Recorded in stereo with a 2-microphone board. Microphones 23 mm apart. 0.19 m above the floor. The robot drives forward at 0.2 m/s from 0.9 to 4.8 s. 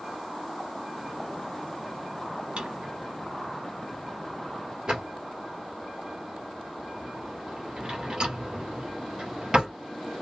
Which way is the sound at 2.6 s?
45° right (ahead or behind).